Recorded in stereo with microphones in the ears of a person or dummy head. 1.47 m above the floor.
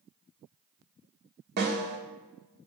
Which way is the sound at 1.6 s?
55° right (ahead or behind).